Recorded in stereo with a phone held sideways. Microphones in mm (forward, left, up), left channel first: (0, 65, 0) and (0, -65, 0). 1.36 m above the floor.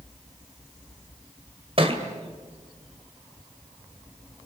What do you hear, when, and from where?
1.8 s a thud: 45° right (ahead or behind), 2.5 m